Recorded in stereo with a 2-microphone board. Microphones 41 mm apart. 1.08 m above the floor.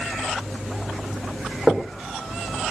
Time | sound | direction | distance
1.7 | knocking | centre (ahead or behind) | 3.5 m